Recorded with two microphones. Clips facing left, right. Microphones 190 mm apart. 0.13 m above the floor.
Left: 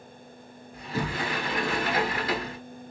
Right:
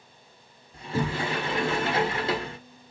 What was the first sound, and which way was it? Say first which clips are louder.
A sliding door: right 2 dB; 30° right (ahead or behind).